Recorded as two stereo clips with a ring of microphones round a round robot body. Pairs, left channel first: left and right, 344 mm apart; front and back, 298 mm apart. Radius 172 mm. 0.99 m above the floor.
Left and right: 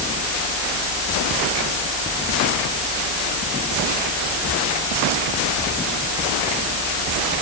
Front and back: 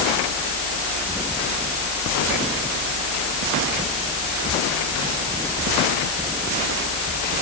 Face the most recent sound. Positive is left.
No sound to turn to.